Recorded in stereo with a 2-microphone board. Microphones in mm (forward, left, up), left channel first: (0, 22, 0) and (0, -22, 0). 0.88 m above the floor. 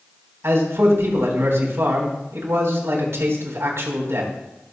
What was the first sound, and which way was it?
A man speaking, 75° right (ahead or behind).